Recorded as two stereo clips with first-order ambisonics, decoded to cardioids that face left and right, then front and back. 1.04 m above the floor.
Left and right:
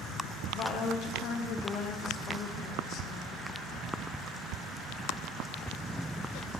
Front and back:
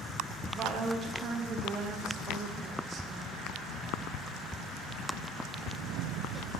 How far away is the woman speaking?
About 1.0 m.